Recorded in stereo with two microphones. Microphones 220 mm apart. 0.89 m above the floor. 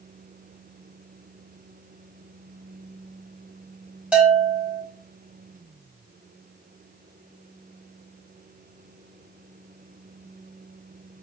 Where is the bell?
5° right (ahead or behind), 3 m.